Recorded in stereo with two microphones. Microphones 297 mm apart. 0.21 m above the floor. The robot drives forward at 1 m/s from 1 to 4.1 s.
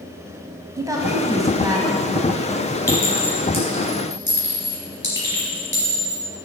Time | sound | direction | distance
0.8 | a woman speaking | 10° right (ahead or behind) | 1.1 m
2.9 | a clink | 55° left (ahead or behind) | 2.5 m